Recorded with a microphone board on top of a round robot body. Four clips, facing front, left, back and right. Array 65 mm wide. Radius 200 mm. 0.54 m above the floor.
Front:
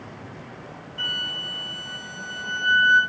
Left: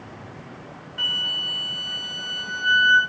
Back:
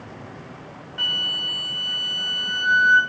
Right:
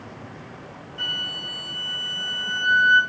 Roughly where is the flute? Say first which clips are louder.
Left 3 dB, back 3 dB; behind left.